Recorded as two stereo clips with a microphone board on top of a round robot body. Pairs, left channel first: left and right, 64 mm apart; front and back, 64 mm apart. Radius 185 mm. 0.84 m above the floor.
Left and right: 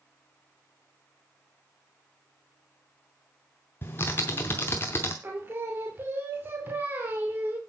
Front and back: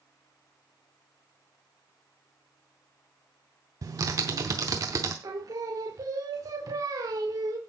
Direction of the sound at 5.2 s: 150° right.